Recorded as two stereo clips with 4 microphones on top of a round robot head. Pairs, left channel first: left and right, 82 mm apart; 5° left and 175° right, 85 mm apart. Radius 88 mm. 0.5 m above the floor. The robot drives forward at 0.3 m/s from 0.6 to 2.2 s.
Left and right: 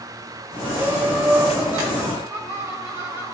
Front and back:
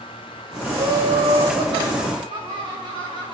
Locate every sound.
0.7 s laughter: 160° right, 3 m